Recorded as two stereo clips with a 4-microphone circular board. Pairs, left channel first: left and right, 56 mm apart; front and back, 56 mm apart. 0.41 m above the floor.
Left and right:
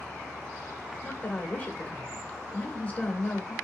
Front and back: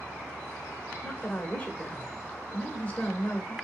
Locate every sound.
1.0 s a woman speaking: 50° left, 0.9 m